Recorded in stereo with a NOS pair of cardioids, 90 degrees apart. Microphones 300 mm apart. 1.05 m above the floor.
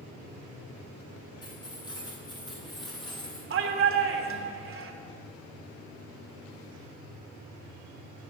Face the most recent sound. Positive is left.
turn(degrees=-45)